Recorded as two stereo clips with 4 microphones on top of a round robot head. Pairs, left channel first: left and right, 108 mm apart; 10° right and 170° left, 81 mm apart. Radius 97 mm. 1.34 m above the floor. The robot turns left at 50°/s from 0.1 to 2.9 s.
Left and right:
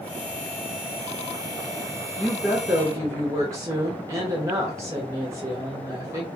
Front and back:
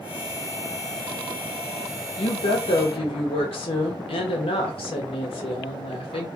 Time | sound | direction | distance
2.2 | a woman speaking | 15° left | 1.0 m